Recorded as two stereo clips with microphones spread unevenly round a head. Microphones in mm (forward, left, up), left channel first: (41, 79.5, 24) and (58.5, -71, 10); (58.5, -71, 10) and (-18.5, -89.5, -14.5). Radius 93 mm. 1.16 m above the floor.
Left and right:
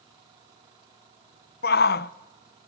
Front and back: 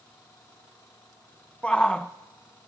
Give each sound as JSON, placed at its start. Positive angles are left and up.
{"t": 1.6, "sound": "a shout", "azimuth_deg": 105, "distance_m": 0.6}